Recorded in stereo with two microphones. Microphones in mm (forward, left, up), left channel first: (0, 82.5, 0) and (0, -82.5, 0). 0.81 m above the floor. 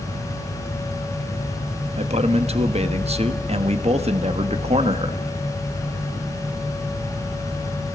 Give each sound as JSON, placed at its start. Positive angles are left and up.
{"t": 2.0, "sound": "a man speaking", "side_deg": -40, "distance_m": 1.3}